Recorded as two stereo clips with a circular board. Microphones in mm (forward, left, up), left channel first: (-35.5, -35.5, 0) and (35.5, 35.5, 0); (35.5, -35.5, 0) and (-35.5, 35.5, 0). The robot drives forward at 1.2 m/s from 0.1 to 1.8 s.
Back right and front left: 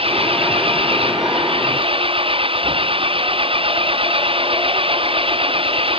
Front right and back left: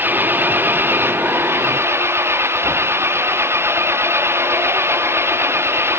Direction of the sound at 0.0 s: 65° left.